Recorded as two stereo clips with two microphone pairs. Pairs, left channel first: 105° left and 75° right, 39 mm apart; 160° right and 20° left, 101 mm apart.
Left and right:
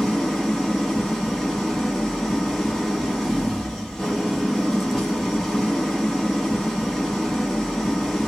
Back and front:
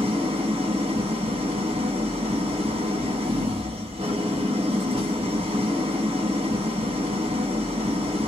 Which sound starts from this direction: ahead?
An engine running, at 0.0 s.